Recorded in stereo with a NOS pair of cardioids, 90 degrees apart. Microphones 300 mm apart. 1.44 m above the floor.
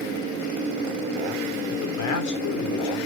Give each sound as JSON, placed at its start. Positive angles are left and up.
{"t": 1.7, "sound": "a man speaking", "azimuth_deg": 65, "distance_m": 5.5}